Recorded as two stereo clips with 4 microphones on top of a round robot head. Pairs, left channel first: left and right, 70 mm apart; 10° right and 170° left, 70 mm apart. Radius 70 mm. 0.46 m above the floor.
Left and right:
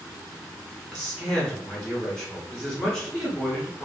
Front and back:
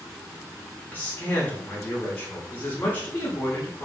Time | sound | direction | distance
0.9 | a man speaking | 25° left | 0.8 m